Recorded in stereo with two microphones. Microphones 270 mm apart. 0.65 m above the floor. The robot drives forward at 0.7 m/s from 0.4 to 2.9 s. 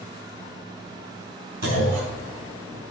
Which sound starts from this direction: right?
A clunk, at 1.6 s.